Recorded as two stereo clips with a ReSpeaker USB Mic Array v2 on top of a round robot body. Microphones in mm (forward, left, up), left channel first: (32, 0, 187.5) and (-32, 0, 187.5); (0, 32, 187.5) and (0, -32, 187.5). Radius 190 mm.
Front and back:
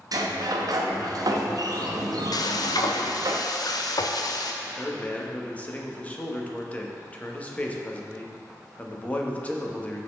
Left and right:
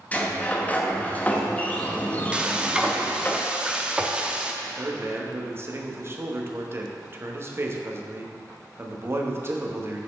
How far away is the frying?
About 0.8 m.